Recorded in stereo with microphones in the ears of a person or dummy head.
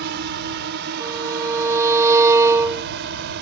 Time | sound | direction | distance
0.0 | a drone | 55° right (ahead or behind) | ?
1.0 | a violin | 15° right (ahead or behind) | ?